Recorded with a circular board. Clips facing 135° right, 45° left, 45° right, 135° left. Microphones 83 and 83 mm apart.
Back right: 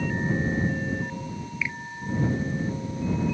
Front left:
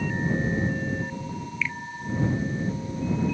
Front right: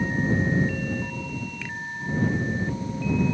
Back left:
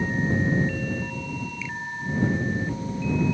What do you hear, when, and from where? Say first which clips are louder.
1.6 s a finger snap: front left 1 dB, back left 1 dB; 60° right